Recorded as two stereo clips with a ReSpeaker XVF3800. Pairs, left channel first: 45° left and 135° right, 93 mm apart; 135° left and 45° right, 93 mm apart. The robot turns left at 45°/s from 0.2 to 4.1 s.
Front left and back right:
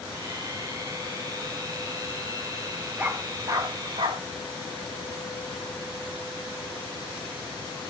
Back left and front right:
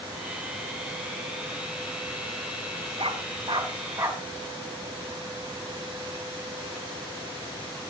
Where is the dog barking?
60° right, 4.5 m; by 4.2 s 110° right, 4.5 m.